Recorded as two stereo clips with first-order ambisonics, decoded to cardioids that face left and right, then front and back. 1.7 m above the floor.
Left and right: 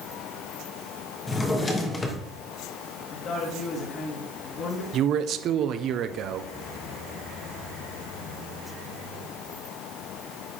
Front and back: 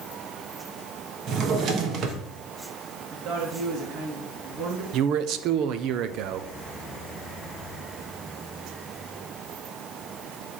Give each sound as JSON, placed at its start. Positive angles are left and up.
{"t": 1.3, "sound": "a drawer", "azimuth_deg": 155, "distance_m": 1.1}
{"t": 3.1, "sound": "a woman speaking", "azimuth_deg": 145, "distance_m": 1.5}
{"t": 4.9, "sound": "a man speaking", "azimuth_deg": -140, "distance_m": 0.6}